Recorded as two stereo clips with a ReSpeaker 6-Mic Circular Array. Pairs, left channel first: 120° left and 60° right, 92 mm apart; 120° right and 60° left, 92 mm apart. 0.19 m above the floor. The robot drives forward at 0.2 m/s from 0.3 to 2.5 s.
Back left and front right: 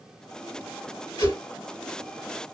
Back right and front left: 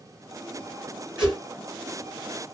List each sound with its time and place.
1.2 s a whoosh: 135° left, 2.5 m